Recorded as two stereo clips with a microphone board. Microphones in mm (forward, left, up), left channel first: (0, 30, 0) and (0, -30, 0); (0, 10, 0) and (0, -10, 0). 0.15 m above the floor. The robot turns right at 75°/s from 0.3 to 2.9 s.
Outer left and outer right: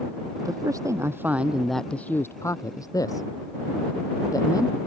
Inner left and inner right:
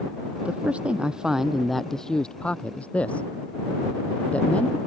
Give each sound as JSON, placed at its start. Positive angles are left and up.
{"t": 0.4, "sound": "a man speaking", "side_deg": -75}